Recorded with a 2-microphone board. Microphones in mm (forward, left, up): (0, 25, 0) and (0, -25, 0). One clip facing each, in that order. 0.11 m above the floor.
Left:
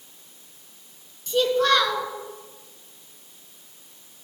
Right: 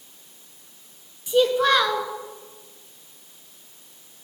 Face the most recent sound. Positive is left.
turn(degrees=-15)  # may be behind; listen again after turning